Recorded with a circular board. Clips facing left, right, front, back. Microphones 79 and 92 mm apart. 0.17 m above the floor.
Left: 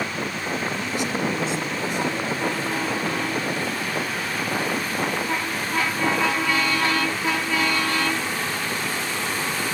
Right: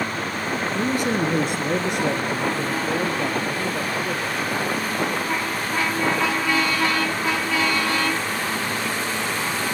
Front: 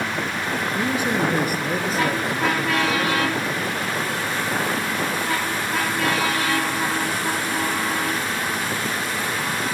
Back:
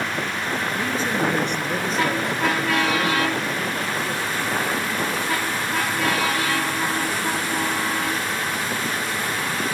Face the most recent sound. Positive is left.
turn(degrees=-100)